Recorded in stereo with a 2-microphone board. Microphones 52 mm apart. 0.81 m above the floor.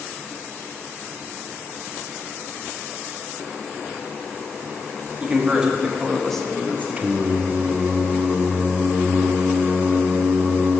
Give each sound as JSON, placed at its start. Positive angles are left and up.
{"t": 5.2, "sound": "a man speaking", "side_deg": -20, "distance_m": 1.9}
{"t": 7.0, "sound": "singing", "side_deg": -30, "distance_m": 0.9}